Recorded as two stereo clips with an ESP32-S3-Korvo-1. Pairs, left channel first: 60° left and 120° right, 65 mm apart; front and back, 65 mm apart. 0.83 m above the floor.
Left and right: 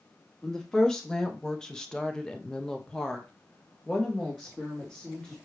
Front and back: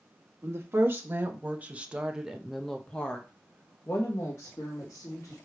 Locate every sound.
0.4 s a woman speaking: 140° left, 1.5 m; by 5.4 s 25° right, 1.8 m